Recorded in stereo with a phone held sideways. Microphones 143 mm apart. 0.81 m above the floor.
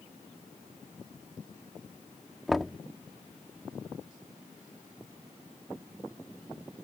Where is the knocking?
Centre (ahead or behind).